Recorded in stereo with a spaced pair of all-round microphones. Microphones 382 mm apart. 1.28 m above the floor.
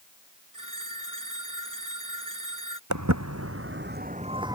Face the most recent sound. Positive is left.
turn(degrees=-10)  # may be behind; listen again after turning